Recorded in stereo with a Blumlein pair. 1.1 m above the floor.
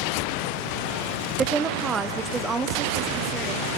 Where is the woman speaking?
15° right, 0.8 m; by 3.7 s 20° right, 2.5 m.